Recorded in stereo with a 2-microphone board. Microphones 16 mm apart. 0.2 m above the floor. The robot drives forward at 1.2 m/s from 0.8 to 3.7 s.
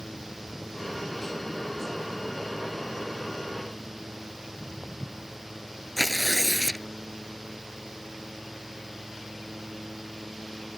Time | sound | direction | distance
4.4 | footsteps | 50° right (ahead or behind) | ?
6.0 | tearing paper | 5° left (ahead or behind) | ?